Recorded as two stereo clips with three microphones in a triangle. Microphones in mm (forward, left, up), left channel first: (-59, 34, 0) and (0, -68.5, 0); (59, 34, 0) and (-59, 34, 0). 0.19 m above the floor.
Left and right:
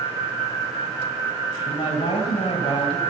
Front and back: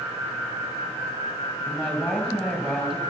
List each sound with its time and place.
1.7 s a woman speaking: 95° left, 3.5 m